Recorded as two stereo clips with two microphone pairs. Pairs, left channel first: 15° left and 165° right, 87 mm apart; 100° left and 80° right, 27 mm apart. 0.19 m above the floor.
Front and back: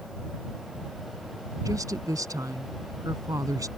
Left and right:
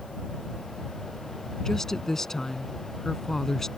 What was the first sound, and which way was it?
A woman speaking, 170° left.